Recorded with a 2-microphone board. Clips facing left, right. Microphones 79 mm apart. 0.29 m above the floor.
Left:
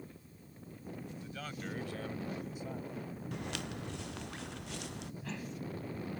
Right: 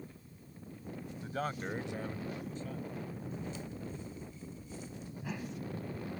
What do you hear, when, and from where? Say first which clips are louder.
1.2 s a man speaking: right 9 dB; 50° right (ahead or behind); by 3.0 s 25° left (ahead or behind)
3.3 s footsteps: left 1 dB; 80° left
5.2 s a whoosh: right 4 dB; 10° right (ahead or behind)